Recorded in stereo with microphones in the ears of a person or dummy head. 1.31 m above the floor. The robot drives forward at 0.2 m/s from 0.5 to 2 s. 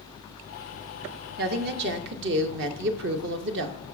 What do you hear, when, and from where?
1.4 s a woman speaking: 50° right (ahead or behind), 0.6 m; by 3.8 s 55° right (ahead or behind), 0.5 m